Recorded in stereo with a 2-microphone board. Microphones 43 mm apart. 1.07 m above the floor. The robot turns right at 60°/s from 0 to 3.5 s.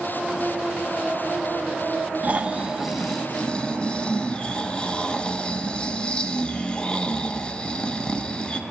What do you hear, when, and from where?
2.2 s snoring: 50° right, 0.5 m; by 8.6 s 25° left, 0.5 m